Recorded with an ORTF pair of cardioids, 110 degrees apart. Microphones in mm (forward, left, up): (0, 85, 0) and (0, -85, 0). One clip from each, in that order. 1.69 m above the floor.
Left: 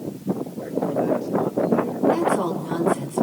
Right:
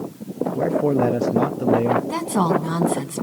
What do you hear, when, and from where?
0.6 s a man speaking: 60° right, 0.8 m
2.1 s a woman speaking: 60° right, 3 m